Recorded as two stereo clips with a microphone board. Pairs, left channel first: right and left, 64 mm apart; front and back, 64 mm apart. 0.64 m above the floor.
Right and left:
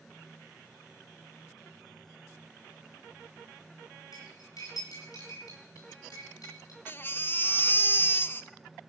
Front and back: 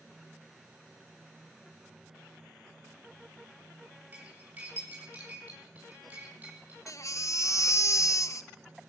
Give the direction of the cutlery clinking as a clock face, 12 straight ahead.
4 o'clock.